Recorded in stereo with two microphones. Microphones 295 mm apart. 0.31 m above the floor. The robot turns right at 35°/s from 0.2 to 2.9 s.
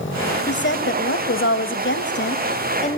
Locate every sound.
0.5 s a woman speaking: 60° left, 1.4 m; by 3.0 s 145° left, 1.4 m